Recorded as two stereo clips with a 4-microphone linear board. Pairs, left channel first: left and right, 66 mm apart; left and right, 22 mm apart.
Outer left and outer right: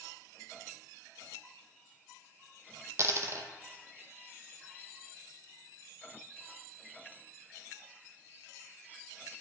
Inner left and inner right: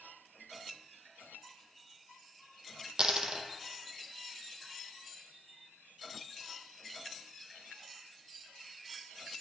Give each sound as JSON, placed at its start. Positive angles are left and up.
{"t": 3.0, "sound": "a dropped coin", "side_deg": -45, "distance_m": 0.8}